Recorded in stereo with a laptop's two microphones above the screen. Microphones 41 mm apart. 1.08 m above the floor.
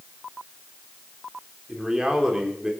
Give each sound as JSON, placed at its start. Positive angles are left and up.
{"t": 1.7, "sound": "a man speaking", "side_deg": -15, "distance_m": 3.0}